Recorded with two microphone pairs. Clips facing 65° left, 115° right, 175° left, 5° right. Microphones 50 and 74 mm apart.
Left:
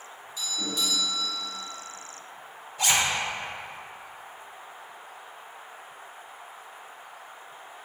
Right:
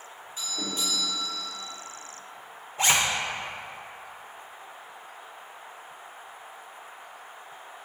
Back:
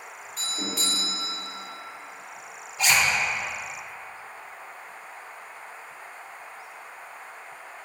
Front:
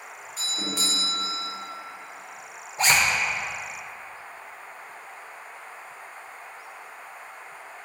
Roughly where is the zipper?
Ahead right.